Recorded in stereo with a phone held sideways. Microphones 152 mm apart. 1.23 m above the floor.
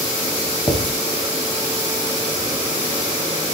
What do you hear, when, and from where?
0.7 s writing: 30° left (ahead or behind), 2 m